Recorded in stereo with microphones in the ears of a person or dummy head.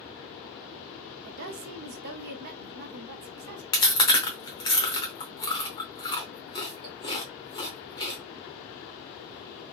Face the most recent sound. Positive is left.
turn(degrees=20)  # may be behind; listen again after turning